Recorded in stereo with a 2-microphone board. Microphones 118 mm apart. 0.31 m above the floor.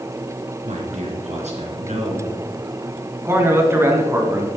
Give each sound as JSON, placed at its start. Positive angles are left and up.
{"t": 0.6, "sound": "a man speaking", "side_deg": -75, "distance_m": 3.0}
{"t": 3.2, "sound": "a man speaking", "side_deg": -20, "distance_m": 2.5}